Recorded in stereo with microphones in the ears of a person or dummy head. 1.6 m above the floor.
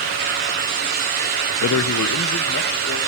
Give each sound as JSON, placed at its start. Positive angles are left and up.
{"t": 1.6, "sound": "a man speaking", "side_deg": 70, "distance_m": 0.5}